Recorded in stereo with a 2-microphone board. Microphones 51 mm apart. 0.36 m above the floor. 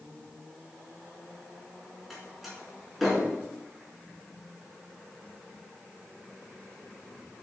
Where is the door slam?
Centre (ahead or behind), 4 m.